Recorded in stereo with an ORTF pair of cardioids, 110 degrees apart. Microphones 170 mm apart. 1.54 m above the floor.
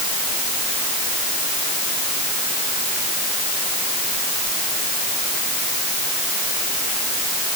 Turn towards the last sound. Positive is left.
No sound to turn to.